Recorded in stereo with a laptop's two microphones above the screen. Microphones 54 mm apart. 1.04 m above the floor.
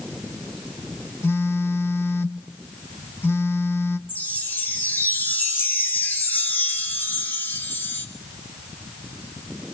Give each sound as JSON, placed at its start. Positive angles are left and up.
{"t": 1.2, "sound": "a phone buzzing", "side_deg": 50, "distance_m": 1.3}
{"t": 4.1, "sound": "a chime", "side_deg": 40, "distance_m": 2.0}